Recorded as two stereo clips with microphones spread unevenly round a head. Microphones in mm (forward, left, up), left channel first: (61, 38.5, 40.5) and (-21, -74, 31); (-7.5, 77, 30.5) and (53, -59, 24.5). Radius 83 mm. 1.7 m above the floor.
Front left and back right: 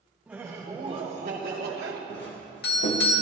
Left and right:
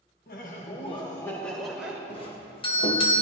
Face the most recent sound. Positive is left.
turn(degrees=60)